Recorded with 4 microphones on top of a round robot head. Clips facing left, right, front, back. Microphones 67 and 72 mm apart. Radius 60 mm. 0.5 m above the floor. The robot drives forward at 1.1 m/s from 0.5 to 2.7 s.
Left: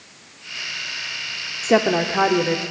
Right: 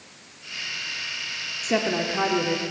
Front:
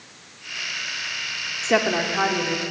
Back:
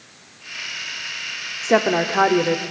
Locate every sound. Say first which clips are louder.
1.6 s a woman speaking: left 7 dB, back 3 dB; 110° left, 0.9 m; by 2.6 s 155° left, 1.6 m